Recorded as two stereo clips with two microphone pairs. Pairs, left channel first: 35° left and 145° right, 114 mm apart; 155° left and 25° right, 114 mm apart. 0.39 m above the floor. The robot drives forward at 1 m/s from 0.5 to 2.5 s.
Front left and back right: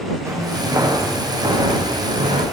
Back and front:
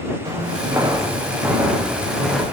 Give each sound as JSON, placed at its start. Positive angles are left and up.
{"t": 0.2, "sound": "footsteps", "azimuth_deg": -80, "distance_m": 6.0}